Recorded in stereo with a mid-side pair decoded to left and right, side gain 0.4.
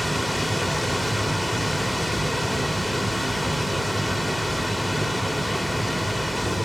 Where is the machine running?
5° left, 2 m.